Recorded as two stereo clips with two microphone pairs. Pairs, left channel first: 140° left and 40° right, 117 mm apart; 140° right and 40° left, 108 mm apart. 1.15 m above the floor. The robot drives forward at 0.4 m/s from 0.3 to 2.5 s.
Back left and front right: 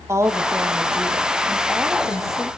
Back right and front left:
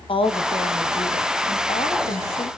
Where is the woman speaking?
105° right, 1.6 m; by 2.5 s 130° right, 2 m.